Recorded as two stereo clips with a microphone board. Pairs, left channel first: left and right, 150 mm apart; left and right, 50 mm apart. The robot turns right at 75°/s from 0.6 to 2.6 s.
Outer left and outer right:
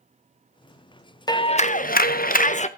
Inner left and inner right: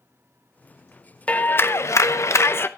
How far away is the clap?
About 0.8 m.